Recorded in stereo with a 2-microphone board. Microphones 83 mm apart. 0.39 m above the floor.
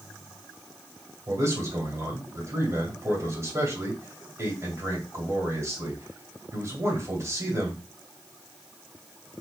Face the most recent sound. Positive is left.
turn(degrees=-35)  # may be behind; listen again after turning